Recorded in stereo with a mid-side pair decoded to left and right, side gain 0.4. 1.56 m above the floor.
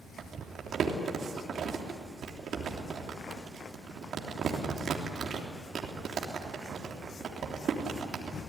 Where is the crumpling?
60° right, 3.5 m.